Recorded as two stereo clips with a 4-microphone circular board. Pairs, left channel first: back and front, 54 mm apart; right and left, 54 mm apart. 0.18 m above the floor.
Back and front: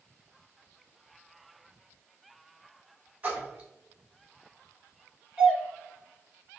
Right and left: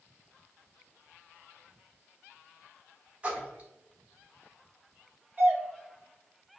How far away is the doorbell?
About 1.6 m.